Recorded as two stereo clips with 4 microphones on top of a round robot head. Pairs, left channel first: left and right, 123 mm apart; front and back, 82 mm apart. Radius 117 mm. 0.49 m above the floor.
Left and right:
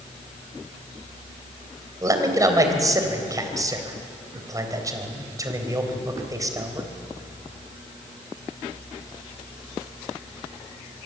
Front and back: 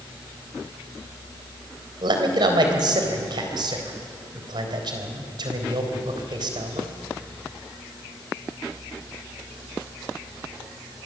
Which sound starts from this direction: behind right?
A man speaking, at 2.0 s.